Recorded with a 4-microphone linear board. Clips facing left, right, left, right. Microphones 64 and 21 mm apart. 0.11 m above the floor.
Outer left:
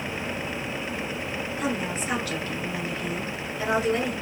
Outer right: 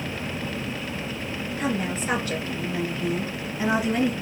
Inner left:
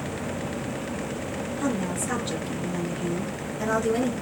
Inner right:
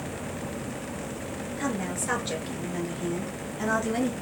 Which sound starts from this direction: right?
A woman speaking, at 1.6 s.